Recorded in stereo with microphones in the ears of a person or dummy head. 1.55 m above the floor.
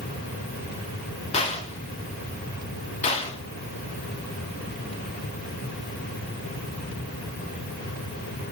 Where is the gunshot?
30° left (ahead or behind), 0.9 m.